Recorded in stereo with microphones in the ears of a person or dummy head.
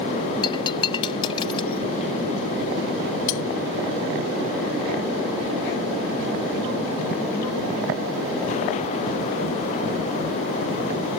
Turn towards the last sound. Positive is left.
turn(degrees=70)  # may be behind; listen again after turning